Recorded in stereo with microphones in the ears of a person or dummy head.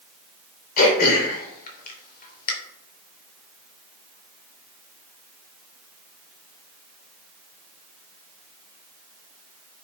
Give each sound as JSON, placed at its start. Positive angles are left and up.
{"t": 0.8, "sound": "throat clearing", "side_deg": 50, "distance_m": 3.0}